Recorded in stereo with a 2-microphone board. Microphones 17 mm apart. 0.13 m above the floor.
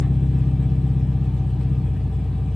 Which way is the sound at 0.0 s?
80° left.